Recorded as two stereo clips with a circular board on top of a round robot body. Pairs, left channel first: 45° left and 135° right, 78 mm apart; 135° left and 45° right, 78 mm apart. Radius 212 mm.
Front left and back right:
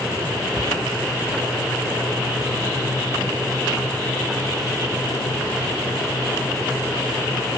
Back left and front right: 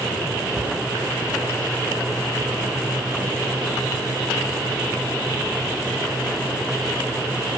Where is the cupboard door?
105° right, 6.5 m.